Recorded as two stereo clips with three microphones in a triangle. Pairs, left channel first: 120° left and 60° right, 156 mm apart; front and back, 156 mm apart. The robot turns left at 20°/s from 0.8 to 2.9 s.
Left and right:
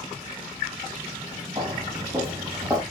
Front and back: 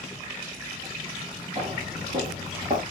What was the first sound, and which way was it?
Footsteps, 130° right.